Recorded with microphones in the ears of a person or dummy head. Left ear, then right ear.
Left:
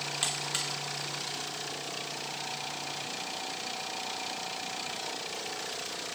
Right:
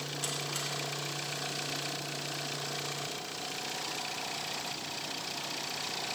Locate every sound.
0.2 s a buzzer: 20° left (ahead or behind), 0.9 m